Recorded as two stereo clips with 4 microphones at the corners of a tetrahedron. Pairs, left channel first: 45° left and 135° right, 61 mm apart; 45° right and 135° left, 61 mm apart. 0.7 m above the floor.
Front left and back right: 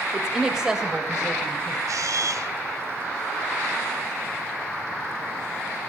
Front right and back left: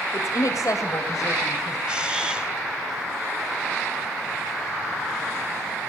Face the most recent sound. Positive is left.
turn(degrees=-150)